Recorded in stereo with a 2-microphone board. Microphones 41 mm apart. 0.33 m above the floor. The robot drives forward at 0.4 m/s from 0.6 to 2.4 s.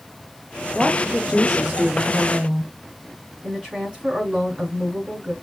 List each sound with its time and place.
0.8 s a woman speaking: 15° right (ahead or behind), 0.9 m; by 2.7 s 10° right (ahead or behind), 1.2 m
3.4 s a woman speaking: 20° right (ahead or behind), 4 m